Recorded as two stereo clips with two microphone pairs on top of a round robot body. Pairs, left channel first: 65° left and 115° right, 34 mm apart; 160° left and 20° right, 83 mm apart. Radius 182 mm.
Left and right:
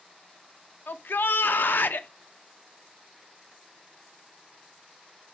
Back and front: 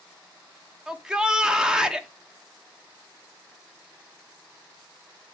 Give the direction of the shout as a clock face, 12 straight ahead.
10 o'clock.